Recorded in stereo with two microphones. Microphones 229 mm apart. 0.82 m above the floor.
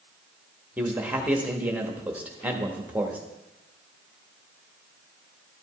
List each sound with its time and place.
0.8 s a man speaking: 5° right (ahead or behind), 1.3 m